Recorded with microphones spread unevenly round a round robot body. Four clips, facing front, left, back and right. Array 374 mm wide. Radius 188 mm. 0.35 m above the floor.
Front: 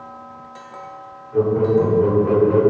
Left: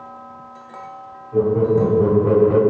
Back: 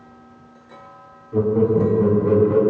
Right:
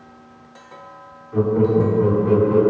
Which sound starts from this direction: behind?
Laughter, at 1.3 s.